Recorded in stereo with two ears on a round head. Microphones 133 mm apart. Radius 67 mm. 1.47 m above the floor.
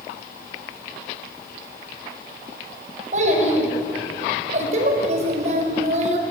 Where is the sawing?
No sawing in this recording.